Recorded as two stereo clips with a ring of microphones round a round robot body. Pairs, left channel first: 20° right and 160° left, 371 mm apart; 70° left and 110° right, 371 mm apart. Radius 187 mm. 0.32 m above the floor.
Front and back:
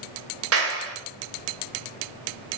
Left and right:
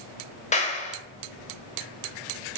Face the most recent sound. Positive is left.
turn(degrees=130)